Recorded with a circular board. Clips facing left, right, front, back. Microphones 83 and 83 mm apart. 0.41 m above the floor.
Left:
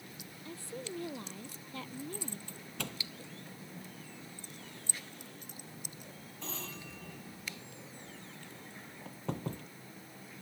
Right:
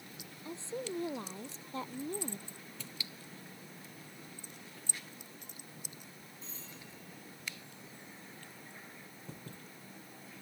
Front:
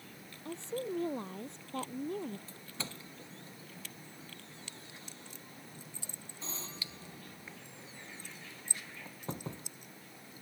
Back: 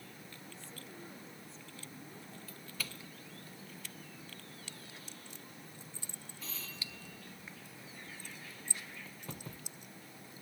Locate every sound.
0.5 s a woman speaking: 20° right; by 2.4 s 25° right
2.5 s a doorbell: 65° left